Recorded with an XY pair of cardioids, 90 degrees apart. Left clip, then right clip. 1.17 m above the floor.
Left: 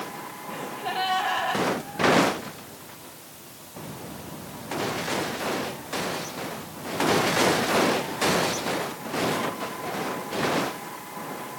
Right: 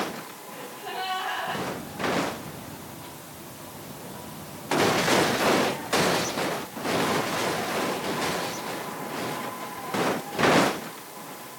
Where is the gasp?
55° left, 5.5 m.